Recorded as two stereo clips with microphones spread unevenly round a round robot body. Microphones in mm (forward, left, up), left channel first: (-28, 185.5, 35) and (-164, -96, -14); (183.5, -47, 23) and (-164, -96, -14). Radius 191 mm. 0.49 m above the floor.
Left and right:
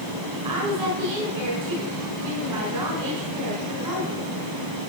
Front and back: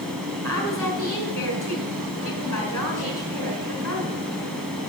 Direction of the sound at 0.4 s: 75° right.